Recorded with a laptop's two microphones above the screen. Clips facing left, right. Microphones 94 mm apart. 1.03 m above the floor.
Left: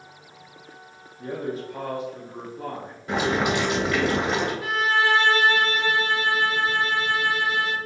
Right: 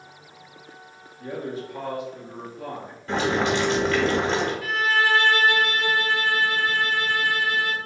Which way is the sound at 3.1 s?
15° left (ahead or behind).